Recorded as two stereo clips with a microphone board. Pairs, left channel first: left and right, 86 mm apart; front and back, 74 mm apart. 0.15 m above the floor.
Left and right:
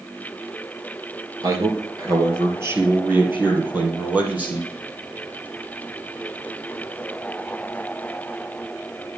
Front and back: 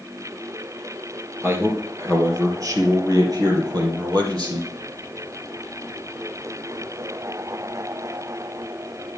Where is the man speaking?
130° right, 2 m; by 4.7 s 165° right, 4 m.